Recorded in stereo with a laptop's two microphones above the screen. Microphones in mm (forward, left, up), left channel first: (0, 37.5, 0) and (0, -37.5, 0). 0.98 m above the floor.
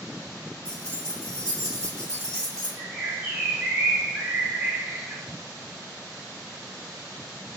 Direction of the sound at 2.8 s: 15° right (ahead or behind).